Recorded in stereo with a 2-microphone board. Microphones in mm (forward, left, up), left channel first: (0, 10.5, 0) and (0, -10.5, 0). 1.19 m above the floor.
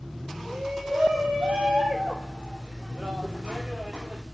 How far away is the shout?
About 5 m.